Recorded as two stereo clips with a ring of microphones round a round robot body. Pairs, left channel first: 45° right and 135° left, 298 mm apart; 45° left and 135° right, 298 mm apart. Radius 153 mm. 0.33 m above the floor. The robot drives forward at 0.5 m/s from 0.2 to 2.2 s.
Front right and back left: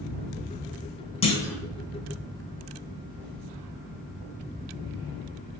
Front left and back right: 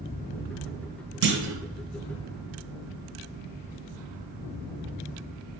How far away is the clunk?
About 0.6 m.